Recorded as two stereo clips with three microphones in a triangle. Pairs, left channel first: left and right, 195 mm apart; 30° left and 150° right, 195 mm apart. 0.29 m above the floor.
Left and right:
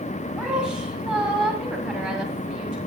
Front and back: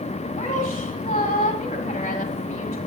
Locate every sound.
0.4 s a woman speaking: 5° right, 1.6 m